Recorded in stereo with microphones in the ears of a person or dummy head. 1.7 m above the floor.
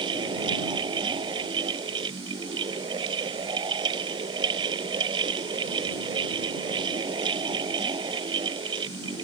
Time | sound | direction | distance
0.0 | a fan | 25° right (ahead or behind) | ?